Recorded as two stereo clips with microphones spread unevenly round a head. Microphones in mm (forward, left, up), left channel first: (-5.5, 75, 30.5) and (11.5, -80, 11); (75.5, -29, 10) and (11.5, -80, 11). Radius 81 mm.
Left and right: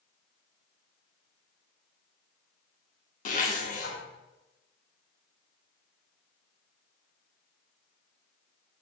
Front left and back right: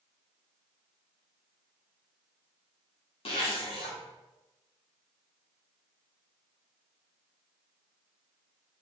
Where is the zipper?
60° left, 1.9 m.